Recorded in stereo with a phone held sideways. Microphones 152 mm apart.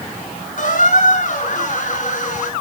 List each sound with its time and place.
0.6 s a squeak: 55° left (ahead or behind), 3 m